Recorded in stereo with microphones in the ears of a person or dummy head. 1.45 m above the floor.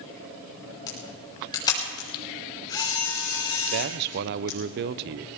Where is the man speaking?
55° right (ahead or behind), 0.7 m.